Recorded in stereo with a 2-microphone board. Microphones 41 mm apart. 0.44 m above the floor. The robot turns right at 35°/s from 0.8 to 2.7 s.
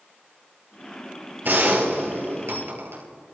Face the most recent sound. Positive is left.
turn(degrees=-80)